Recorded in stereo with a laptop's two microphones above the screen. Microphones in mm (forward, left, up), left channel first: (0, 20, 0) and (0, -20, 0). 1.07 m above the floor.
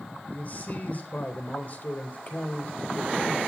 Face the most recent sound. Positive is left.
turn(degrees=40)  # may be behind; listen again after turning